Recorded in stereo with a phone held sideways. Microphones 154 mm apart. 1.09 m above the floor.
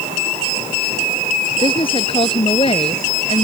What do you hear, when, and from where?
1.6 s a woman speaking: 35° left (ahead or behind); by 3.5 s 40° left (ahead or behind)